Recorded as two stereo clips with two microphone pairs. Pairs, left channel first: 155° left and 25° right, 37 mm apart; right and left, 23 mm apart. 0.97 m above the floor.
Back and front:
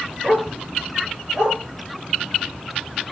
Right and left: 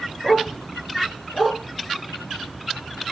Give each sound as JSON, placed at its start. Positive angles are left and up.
{"t": 0.2, "sound": "a dog barking", "azimuth_deg": -70, "distance_m": 7.0}